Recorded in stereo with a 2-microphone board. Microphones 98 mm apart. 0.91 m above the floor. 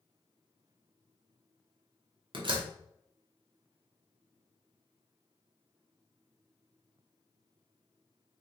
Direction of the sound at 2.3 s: 60° right (ahead or behind).